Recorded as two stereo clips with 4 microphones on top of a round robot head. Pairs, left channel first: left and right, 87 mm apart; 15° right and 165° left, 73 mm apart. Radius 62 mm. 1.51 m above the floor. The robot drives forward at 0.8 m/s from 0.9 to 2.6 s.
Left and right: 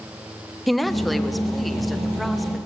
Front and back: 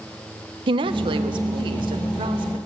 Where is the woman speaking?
Straight behind, 1.6 m.